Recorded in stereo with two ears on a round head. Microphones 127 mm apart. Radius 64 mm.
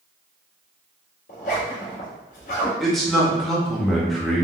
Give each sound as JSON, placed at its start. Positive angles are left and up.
{"t": 1.3, "sound": "a zipper", "side_deg": 60, "distance_m": 1.5}
{"t": 2.8, "sound": "a man speaking", "side_deg": 0, "distance_m": 0.8}